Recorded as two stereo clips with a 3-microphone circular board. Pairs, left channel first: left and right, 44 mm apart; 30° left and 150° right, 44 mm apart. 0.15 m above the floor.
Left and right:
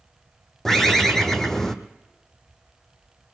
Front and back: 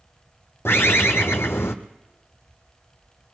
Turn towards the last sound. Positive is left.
turn(degrees=10)